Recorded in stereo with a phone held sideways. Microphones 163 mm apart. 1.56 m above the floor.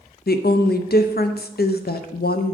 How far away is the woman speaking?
About 0.5 m.